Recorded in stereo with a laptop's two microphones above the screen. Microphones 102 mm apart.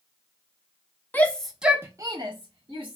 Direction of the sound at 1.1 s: 20° left (ahead or behind).